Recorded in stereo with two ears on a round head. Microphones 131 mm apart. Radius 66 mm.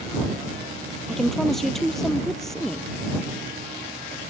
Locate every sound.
1.1 s a woman speaking: centre (ahead or behind)